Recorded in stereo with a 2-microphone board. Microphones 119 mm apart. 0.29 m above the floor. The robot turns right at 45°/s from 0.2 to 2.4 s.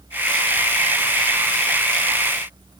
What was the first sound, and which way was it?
Only background noise.